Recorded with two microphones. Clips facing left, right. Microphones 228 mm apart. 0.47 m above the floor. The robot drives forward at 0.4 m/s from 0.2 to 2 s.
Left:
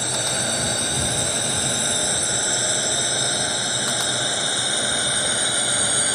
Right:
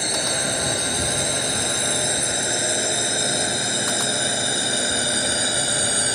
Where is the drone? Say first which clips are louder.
Right 1 dB; 20° right (ahead or behind); by 6.1 s 25° right (ahead or behind).